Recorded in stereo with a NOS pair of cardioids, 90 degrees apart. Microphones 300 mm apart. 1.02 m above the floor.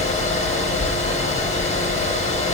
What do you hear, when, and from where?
0.0 s a fan: 25° left, 1.8 m